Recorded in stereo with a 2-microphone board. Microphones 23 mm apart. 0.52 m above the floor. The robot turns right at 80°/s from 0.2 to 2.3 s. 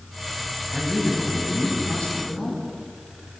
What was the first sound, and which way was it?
A man speaking, straight ahead.